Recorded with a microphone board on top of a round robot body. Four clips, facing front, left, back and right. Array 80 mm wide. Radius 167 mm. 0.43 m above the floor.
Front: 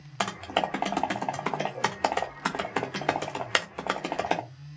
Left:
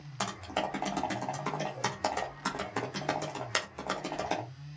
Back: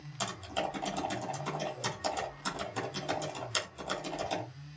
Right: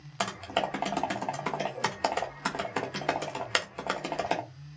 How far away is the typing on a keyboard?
About 1.9 m.